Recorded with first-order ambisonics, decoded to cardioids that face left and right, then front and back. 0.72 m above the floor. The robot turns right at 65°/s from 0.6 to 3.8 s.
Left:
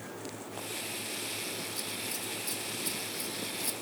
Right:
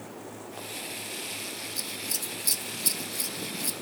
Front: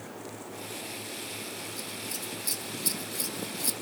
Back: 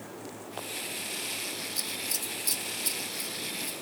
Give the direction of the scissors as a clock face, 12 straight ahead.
5 o'clock.